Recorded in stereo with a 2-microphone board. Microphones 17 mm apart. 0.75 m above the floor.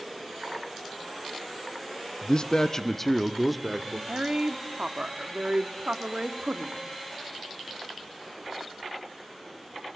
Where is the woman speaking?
65° right (ahead or behind), 1.6 m.